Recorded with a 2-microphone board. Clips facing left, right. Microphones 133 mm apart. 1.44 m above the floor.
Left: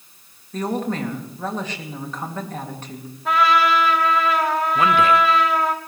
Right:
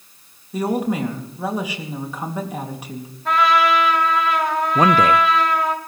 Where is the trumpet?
Centre (ahead or behind), 2.5 m.